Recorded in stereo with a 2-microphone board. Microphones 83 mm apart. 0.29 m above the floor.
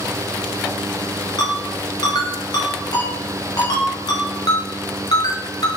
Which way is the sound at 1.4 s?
60° left (ahead or behind).